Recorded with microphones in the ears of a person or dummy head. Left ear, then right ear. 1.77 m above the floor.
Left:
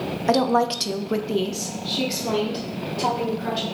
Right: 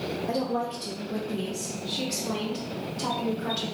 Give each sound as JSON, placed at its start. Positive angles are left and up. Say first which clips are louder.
{"t": 0.3, "sound": "a woman speaking", "louder": "left 11 dB", "side_deg": 60, "distance_m": 0.6}